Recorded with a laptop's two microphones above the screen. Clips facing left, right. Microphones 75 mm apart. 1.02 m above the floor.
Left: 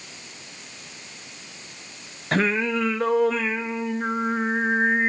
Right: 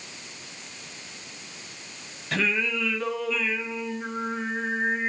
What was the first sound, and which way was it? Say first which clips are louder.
Singing: left 5 dB; 40° left (ahead or behind).